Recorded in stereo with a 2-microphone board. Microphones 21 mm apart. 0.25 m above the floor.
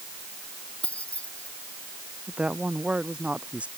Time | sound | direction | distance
0.8 | keys jangling | 80° left | ?
2.3 | a woman speaking | 70° right (ahead or behind) | ?